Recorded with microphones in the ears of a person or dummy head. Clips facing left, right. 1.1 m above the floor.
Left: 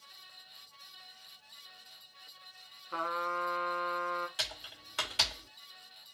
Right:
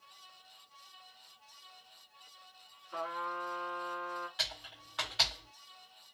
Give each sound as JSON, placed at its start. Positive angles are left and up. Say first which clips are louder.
{"t": 2.9, "sound": "a trumpet", "louder": "left 3 dB", "side_deg": 65, "distance_m": 1.1}
{"t": 4.4, "sound": "typing on a keyboard", "louder": "left 1 dB", "side_deg": 35, "distance_m": 0.9}